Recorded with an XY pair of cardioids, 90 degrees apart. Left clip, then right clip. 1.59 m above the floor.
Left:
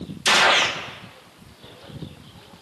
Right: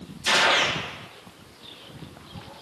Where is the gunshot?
65° left, 2.5 m.